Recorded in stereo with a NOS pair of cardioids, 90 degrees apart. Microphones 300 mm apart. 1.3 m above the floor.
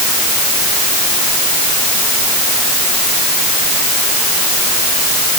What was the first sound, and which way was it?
Only background noise.